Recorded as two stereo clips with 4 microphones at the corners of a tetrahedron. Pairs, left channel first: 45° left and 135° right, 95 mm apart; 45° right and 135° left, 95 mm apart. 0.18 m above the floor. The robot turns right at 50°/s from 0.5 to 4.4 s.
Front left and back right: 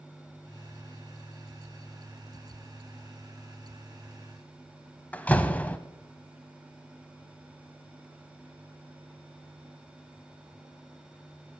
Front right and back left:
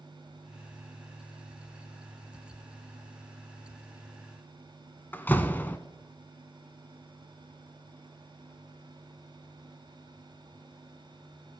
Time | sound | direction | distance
5.1 | a door slam | 10° right | 0.8 m